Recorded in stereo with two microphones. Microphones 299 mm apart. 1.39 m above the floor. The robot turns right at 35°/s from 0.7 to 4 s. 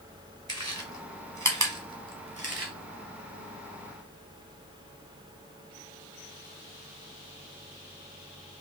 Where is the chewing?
60° right (ahead or behind), 1.3 m; by 2.7 s 45° right (ahead or behind), 1.3 m.